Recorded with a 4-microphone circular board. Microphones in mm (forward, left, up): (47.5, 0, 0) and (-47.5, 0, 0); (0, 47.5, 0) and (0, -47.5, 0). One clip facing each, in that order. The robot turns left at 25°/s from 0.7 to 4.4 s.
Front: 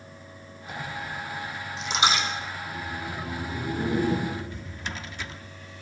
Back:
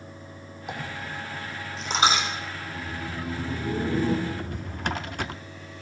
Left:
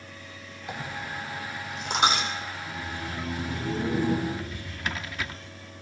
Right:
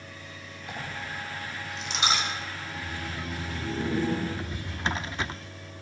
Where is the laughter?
Straight behind, 6 m; by 4.2 s 140° left, 6 m.